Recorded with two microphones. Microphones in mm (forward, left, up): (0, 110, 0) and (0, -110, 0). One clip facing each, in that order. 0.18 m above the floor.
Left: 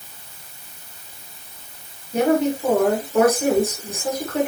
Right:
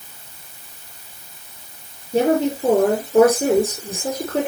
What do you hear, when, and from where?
2.1 s a woman speaking: 30° right (ahead or behind), 5.5 m